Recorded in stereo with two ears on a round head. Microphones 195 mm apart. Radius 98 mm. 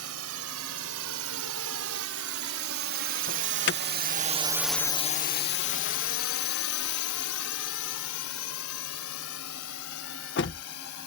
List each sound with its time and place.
0.0 s a drone: 80° right; by 11.1 s 85° left
3.3 s an alarm: 55° left (ahead or behind)